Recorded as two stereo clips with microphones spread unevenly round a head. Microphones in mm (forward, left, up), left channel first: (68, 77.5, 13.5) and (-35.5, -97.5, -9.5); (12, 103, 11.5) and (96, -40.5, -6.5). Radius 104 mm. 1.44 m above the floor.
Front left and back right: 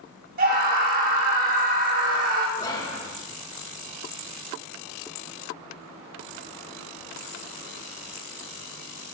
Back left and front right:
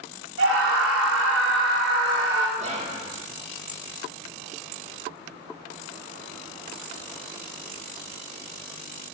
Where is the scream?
75° right, 3.5 m.